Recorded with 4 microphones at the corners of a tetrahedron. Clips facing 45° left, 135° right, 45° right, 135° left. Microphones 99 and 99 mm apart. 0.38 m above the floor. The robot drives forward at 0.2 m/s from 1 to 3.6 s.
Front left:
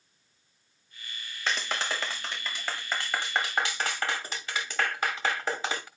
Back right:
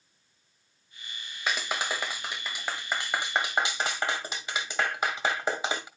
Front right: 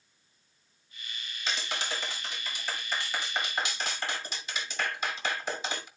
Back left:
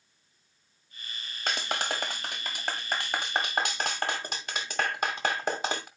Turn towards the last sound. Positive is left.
turn(degrees=155)